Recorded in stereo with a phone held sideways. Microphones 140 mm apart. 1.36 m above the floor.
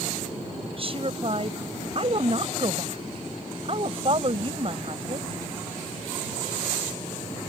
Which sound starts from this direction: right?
A woman speaking, at 0.7 s.